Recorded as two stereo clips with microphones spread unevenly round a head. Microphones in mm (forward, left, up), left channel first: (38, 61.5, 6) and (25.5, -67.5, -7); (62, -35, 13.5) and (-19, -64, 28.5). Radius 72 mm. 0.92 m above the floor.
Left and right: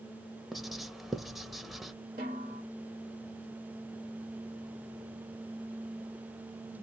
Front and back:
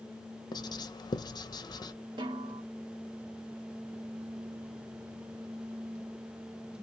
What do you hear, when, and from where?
0.5 s writing: 10° right, 0.6 m
2.2 s a snare drum: 135° right, 1.5 m